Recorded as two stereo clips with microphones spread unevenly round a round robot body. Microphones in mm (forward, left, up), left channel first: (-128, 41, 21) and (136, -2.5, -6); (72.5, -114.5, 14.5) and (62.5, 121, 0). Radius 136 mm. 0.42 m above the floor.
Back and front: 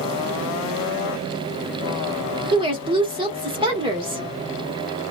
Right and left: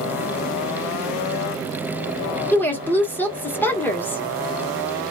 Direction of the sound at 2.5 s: 5° right.